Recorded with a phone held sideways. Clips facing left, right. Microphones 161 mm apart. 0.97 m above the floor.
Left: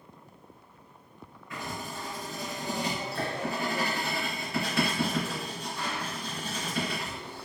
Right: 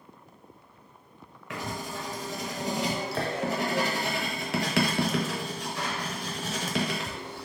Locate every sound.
1.5 s writing: 85° right, 0.6 m